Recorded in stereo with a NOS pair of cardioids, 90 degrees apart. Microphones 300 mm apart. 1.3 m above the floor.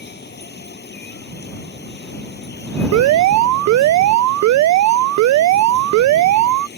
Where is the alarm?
70° right.